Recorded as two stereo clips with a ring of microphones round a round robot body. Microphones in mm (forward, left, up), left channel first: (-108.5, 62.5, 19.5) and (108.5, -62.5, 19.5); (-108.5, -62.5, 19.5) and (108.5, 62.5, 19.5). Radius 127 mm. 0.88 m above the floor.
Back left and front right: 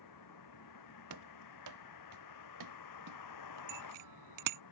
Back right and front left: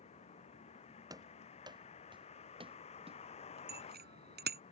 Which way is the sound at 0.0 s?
145° left.